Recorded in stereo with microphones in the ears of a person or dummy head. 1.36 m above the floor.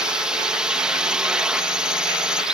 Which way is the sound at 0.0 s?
10° right (ahead or behind).